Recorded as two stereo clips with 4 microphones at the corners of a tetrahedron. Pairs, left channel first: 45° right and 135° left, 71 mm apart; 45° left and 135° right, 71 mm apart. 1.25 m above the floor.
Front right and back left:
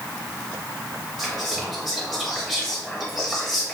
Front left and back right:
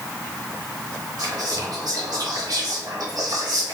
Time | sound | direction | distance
1.2 | whispering | 140° right | 1.2 m